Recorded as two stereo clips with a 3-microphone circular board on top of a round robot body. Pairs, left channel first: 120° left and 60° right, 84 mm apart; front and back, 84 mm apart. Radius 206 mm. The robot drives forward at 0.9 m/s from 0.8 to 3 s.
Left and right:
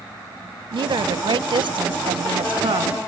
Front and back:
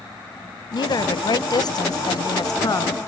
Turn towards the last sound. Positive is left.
turn(degrees=-45)